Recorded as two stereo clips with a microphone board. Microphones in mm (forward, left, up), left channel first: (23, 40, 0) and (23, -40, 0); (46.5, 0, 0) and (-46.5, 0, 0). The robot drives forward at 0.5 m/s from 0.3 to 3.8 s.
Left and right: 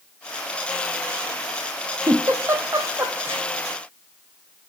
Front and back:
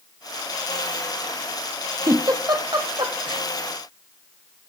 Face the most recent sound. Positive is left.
turn(degrees=-155)